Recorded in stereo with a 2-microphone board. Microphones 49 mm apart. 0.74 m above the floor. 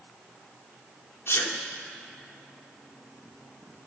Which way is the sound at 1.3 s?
65° left (ahead or behind).